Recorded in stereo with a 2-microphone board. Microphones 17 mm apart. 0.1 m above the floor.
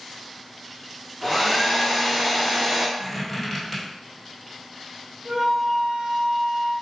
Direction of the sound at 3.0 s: Centre (ahead or behind).